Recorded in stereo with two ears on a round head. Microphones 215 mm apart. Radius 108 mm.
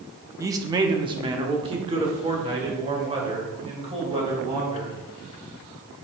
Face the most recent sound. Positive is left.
turn(degrees=-25)  # may be behind; listen again after turning